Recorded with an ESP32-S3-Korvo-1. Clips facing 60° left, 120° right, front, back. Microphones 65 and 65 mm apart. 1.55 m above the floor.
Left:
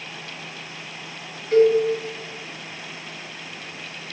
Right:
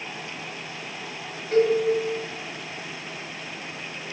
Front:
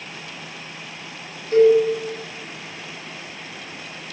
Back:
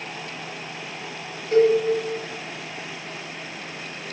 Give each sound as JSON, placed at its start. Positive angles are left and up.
{"t": 1.5, "sound": "a cowbell", "azimuth_deg": 155, "distance_m": 1.2}